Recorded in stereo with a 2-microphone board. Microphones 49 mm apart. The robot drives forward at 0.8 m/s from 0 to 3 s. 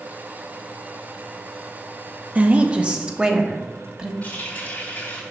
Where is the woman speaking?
30° right (ahead or behind), 0.8 m; by 4.1 s 20° right (ahead or behind), 1.2 m.